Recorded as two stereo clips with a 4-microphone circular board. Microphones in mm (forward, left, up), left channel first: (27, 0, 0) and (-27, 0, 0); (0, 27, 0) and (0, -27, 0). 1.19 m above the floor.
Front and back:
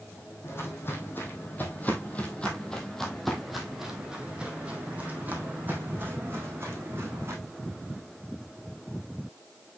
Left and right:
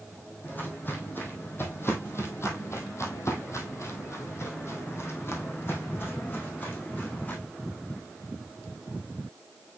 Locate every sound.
0.4 s footsteps: 35° left, 3 m; by 7.4 s 140° left, 4 m